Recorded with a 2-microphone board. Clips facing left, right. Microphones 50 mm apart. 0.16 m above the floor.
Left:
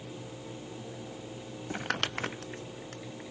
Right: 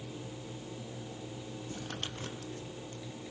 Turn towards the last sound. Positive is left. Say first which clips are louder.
# left 11 dB
turn(degrees=75)  # may be behind; listen again after turning